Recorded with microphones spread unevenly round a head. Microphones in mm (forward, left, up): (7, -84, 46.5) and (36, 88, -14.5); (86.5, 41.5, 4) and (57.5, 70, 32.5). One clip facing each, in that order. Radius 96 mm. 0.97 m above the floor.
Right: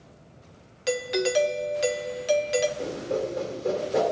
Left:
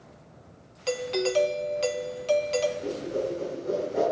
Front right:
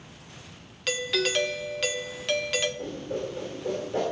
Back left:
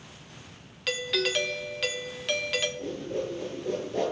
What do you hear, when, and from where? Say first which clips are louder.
0.9 s a doorbell: right 1 dB, front right 1 dB; 10° right, 1.0 m
2.8 s a whoosh: right 1 dB, even; 115° right, 3.5 m